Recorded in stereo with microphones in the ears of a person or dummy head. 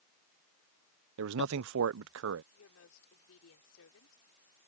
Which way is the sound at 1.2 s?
70° right (ahead or behind).